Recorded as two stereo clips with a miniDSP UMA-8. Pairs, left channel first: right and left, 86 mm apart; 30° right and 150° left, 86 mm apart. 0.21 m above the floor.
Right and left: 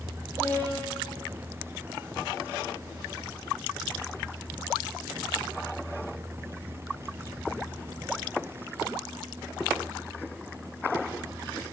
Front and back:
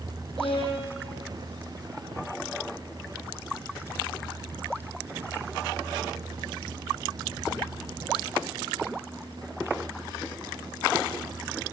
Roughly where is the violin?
Ahead.